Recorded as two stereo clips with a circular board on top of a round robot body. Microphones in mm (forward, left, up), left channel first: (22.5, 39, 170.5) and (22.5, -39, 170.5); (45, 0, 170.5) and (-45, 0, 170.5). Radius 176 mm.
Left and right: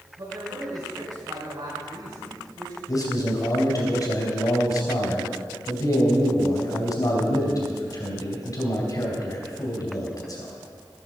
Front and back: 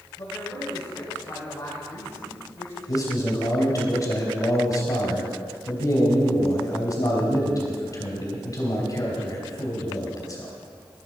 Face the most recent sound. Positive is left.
turn(degrees=50)